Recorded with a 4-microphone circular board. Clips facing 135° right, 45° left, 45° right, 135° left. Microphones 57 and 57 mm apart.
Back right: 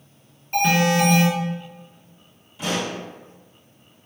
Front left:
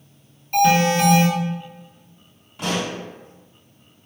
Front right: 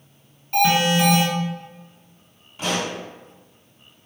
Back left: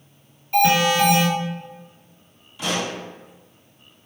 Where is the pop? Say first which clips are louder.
Front left 1 dB, even; 10° left, 1.2 m.